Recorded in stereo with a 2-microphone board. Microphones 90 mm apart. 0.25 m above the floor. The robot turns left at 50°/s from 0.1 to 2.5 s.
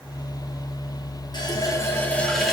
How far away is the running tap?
About 3 m.